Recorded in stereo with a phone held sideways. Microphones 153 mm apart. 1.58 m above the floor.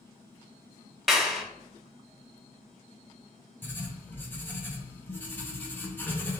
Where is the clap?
Centre (ahead or behind), 0.7 m.